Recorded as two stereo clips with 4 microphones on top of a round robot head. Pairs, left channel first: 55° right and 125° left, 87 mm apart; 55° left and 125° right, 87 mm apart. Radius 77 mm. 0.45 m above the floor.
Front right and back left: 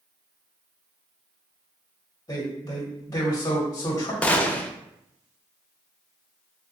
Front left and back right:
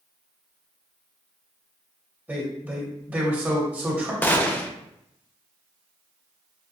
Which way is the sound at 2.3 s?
70° right.